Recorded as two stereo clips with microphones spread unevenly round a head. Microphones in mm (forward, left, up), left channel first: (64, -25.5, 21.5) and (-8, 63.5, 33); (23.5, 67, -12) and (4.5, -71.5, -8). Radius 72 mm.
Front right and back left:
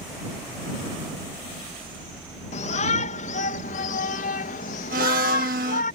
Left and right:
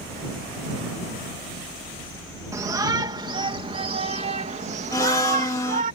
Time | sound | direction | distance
2.5 | a shout | 30° right | ?
4.9 | a blender | 150° left | ?